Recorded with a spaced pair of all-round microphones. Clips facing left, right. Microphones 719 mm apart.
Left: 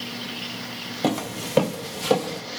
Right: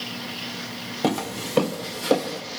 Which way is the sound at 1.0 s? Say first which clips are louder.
Even; centre (ahead or behind).